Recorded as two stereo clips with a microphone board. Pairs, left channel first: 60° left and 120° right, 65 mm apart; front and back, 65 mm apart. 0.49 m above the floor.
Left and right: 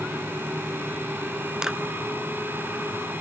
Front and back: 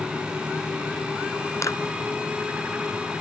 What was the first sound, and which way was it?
A clap, 40° right.